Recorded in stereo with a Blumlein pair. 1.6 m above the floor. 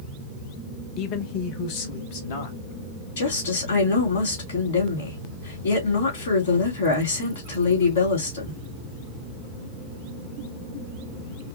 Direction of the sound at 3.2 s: 55° left.